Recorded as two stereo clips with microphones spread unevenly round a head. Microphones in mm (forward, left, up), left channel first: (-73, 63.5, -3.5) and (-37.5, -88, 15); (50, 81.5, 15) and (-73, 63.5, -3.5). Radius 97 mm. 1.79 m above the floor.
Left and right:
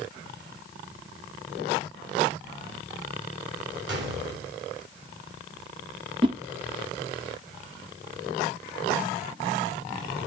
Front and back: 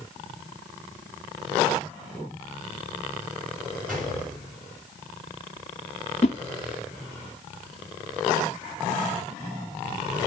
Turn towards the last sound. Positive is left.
turn(degrees=-20)